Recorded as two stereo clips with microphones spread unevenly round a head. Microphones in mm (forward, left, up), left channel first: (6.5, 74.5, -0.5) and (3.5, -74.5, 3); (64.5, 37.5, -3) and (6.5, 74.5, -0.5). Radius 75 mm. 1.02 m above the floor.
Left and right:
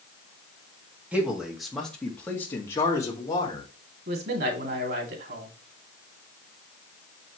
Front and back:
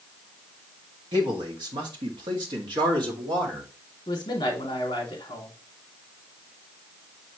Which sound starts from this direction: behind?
A man speaking, at 1.1 s.